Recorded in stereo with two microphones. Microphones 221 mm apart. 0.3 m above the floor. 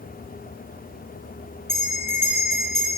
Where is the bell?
90° left, 7 m.